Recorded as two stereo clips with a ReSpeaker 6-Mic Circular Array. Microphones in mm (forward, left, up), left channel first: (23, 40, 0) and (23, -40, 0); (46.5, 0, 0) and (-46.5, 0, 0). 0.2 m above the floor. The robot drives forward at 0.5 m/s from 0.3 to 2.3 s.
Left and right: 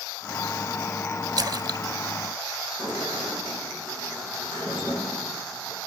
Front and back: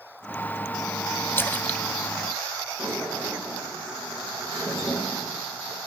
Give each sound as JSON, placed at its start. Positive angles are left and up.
{"t": 1.4, "sound": "a splash", "azimuth_deg": -60, "distance_m": 0.9}
{"t": 2.8, "sound": "a sliding door", "azimuth_deg": 100, "distance_m": 9.0}